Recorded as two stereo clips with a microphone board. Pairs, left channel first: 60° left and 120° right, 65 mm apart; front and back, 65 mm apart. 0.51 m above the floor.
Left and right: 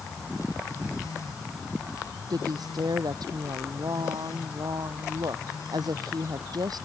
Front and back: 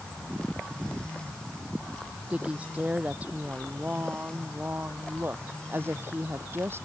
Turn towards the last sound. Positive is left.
turn(degrees=-130)